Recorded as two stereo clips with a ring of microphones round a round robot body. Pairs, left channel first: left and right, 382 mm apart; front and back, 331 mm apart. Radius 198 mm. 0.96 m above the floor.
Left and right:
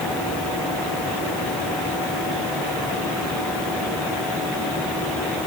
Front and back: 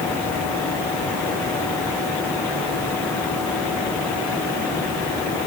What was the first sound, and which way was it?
Only background noise.